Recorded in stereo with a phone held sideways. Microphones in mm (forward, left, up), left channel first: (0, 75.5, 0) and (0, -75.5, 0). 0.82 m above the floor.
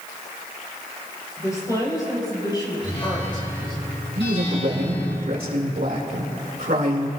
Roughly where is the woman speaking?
Left.